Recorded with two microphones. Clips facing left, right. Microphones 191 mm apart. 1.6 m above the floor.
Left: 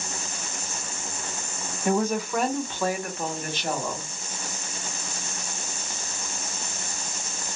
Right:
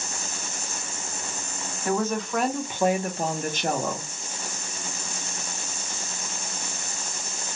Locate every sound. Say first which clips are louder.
1.9 s a woman speaking: left 2 dB; 20° left (ahead or behind), 0.8 m; by 4.1 s 60° right (ahead or behind), 0.9 m